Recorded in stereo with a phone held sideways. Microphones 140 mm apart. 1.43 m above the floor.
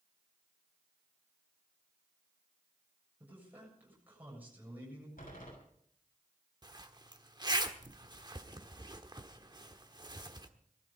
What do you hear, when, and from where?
3.2 s a man speaking: 15° right (ahead or behind), 7 m
5.2 s a door slam: 80° left, 6.5 m
6.6 s a zipper: 30° right (ahead or behind), 1.2 m